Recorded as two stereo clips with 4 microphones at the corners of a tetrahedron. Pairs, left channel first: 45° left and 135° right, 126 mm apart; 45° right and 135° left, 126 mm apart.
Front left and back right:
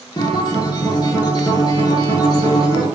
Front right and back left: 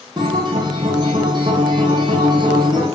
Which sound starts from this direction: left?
A guitar, at 0.2 s.